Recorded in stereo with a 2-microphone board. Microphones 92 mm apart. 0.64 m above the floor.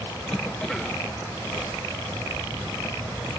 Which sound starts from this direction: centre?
A cough, at 0.3 s.